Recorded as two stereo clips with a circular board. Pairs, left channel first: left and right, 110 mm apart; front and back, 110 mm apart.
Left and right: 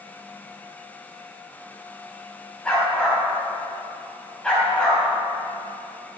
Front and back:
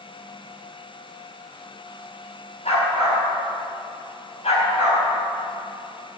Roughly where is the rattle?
No rattle in this recording.